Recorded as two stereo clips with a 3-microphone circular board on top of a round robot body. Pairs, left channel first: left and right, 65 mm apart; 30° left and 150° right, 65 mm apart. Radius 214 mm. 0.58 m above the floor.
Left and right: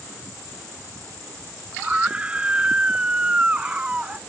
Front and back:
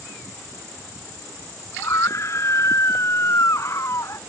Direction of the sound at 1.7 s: 20° right.